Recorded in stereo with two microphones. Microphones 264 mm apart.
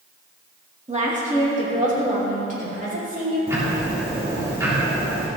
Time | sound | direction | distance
0.9 | a woman speaking | 25° right (ahead or behind) | 2 m
3.5 | ticking | 10° right (ahead or behind) | 3 m